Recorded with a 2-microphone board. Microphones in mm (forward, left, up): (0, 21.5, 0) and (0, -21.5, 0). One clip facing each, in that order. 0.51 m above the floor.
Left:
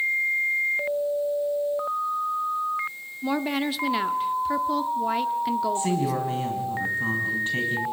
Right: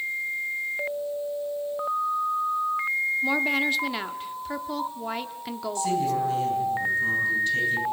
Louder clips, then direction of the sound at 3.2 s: Left 3 dB; centre (ahead or behind).